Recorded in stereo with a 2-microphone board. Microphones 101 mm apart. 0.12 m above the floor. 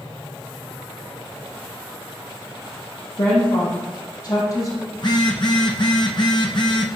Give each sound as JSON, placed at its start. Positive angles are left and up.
{"t": 3.2, "sound": "a woman speaking", "side_deg": 50, "distance_m": 4.5}
{"t": 5.0, "sound": "a phone buzzing", "side_deg": 45, "distance_m": 1.3}